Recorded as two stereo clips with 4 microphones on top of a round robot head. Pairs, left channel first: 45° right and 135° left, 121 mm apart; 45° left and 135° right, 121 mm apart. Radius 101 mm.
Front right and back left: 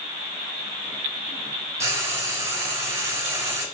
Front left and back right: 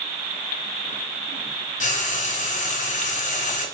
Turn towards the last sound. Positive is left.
turn(degrees=65)